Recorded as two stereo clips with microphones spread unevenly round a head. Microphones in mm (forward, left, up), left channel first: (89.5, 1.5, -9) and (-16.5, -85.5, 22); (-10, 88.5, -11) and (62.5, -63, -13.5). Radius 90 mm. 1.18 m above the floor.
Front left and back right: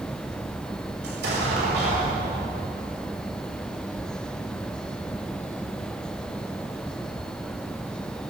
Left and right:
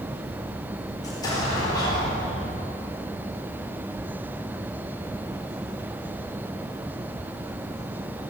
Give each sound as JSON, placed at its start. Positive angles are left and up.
{"t": 1.0, "sound": "an explosion", "azimuth_deg": -175, "distance_m": 7.5}